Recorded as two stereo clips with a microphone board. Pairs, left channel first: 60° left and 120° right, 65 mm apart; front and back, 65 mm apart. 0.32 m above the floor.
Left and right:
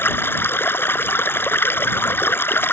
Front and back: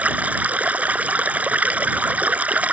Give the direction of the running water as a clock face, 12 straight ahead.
8 o'clock.